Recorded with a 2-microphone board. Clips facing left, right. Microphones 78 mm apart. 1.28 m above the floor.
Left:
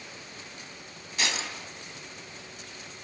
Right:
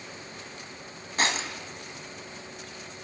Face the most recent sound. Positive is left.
turn(degrees=-40)  # may be behind; listen again after turning